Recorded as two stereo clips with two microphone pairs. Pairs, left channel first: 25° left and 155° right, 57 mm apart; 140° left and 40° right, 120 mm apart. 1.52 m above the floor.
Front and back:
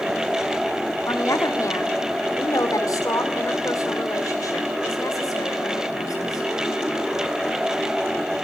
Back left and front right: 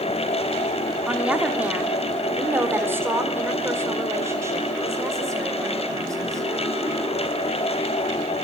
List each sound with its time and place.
1.1 s a woman speaking: 40° left, 3 m; by 6.5 s 25° left, 6.5 m